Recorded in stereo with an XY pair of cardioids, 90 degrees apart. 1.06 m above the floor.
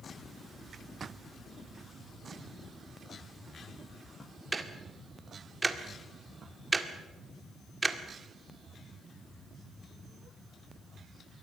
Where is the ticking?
25° right, 1.8 m.